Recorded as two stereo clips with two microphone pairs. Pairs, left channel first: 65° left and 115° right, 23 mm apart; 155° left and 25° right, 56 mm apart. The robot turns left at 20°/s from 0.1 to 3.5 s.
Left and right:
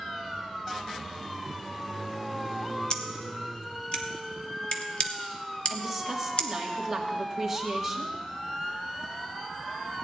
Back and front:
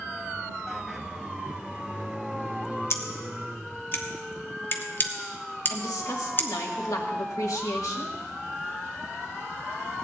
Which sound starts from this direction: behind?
A woman speaking, at 5.7 s.